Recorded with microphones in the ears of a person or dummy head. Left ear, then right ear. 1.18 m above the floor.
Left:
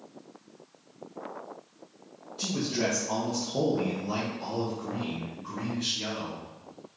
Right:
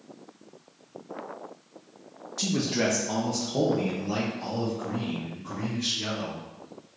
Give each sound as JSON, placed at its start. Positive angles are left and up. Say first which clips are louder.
{"t": 2.4, "sound": "a man speaking", "louder": "right 3 dB", "side_deg": -50, "distance_m": 0.6}